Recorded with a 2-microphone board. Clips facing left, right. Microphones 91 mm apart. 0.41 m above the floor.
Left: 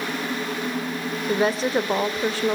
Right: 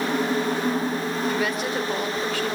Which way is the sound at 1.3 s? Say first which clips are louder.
Left 8 dB; 30° left (ahead or behind).